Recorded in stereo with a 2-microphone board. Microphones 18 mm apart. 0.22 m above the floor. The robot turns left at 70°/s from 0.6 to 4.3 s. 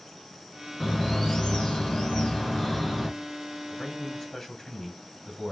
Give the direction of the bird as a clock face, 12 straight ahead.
7 o'clock.